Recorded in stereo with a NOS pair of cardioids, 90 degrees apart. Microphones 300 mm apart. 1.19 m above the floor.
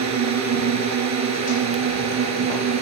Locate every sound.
0.0 s a drone: 65° right; by 2.8 s 60° right